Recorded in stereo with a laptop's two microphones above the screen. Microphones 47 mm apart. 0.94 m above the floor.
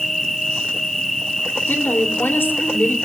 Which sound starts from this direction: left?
A woman speaking, at 1.7 s.